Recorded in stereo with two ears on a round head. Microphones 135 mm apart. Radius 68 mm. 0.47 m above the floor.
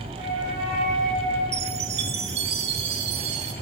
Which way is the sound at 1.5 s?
80° right.